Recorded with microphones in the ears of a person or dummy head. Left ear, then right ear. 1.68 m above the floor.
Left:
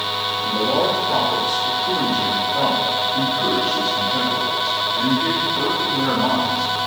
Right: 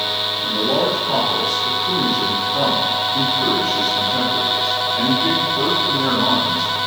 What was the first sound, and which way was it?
A man speaking, 15° right (ahead or behind).